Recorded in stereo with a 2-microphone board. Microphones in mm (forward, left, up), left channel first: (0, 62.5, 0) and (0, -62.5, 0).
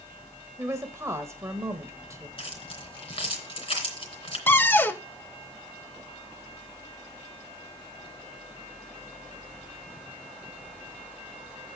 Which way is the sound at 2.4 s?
50° left (ahead or behind).